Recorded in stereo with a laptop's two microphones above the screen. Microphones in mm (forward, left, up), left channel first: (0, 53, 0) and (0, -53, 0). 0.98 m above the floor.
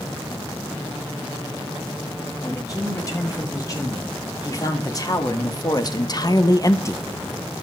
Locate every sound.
2.4 s a man speaking: 35° left (ahead or behind), 5.5 m; by 7.0 s 20° left (ahead or behind), 0.8 m